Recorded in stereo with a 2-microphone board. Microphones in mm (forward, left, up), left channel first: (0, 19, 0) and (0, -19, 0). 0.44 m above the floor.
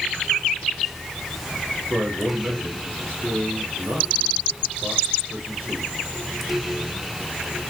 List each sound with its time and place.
1.9 s a man speaking: 70° right (ahead or behind), 6.5 m